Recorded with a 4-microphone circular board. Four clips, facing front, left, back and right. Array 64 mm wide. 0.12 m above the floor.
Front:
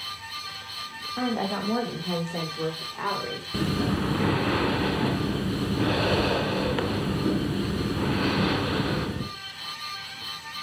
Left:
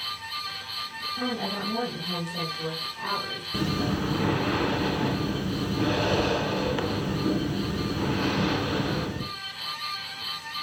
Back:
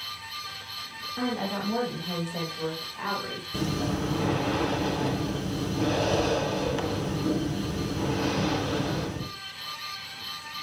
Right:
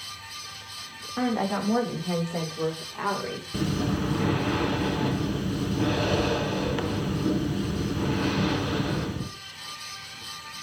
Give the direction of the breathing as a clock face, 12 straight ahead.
11 o'clock.